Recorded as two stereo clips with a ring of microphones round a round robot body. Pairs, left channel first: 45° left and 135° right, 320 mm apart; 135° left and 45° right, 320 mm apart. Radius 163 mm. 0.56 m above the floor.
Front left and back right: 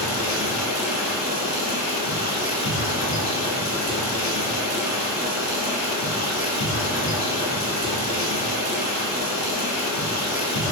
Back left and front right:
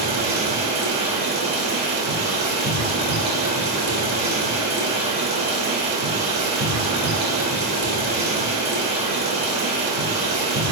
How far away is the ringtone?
No ringtone in this recording.